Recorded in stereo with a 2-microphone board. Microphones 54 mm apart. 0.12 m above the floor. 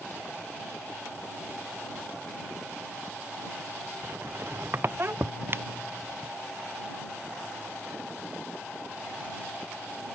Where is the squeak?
45° right (ahead or behind).